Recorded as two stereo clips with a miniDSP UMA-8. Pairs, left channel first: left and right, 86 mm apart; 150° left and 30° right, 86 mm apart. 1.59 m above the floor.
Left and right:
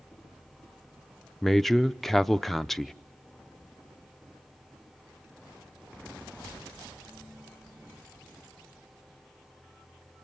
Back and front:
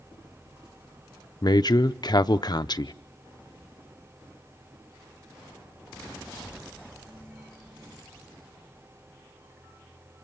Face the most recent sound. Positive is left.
turn(degrees=175)